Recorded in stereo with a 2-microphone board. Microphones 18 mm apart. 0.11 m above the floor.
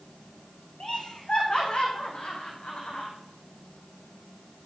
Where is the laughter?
65° left (ahead or behind), 5.5 m; by 3.1 s 75° left (ahead or behind), 4.5 m.